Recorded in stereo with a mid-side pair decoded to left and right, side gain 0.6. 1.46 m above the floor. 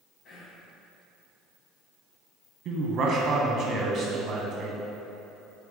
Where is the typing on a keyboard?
I don't hear typing on a keyboard.